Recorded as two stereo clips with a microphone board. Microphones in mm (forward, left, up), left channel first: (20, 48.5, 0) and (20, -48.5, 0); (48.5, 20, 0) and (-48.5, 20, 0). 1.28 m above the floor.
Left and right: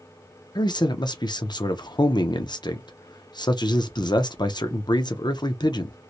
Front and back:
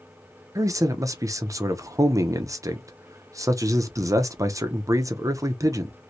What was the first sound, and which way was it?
A man speaking, 125° left.